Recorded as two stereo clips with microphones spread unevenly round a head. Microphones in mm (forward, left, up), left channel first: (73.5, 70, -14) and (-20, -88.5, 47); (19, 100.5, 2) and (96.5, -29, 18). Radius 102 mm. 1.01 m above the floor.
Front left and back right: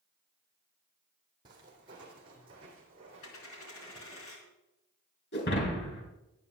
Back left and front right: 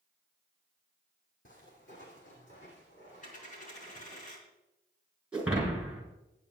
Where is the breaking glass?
25° left, 4.5 m.